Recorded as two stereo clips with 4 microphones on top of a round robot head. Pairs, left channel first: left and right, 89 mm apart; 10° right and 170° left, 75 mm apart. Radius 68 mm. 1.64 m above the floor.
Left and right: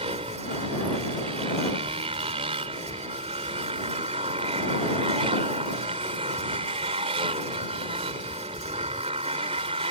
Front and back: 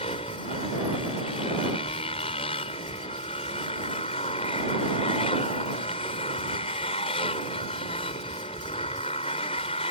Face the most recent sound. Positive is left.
turn(degrees=-45)